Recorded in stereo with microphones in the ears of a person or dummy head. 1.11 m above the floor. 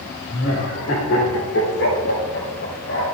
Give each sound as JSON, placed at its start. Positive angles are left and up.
{"t": 0.3, "sound": "laughter", "side_deg": 65, "distance_m": 3.0}